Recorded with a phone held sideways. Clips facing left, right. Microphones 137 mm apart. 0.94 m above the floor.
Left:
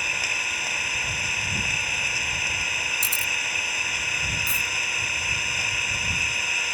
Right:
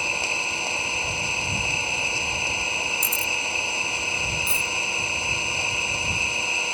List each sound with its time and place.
0.0 s an engine running: 25° right (ahead or behind)
3.0 s a camera shutter: 30° left (ahead or behind)
4.5 s a dropped coin: 30° right (ahead or behind)